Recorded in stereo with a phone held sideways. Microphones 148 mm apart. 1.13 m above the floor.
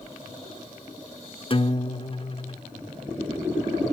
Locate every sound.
1.5 s a guitar: 40° left (ahead or behind), 0.9 m